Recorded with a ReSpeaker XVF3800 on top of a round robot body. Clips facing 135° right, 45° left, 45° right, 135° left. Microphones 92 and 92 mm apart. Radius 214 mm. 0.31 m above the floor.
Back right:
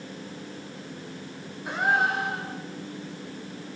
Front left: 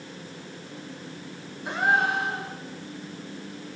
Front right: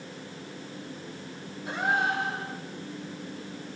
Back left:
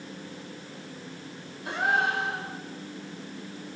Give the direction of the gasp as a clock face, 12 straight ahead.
7 o'clock.